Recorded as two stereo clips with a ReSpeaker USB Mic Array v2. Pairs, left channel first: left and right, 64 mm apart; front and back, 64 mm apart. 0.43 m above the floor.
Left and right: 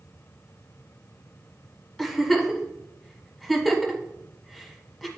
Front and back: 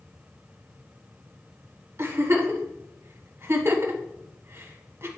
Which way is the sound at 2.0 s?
Straight behind.